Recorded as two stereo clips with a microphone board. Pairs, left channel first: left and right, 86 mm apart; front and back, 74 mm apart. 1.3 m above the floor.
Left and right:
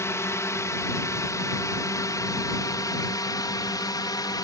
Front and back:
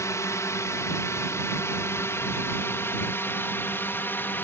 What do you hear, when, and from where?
0.0 s a drone: 40° left; by 4.4 s 60° left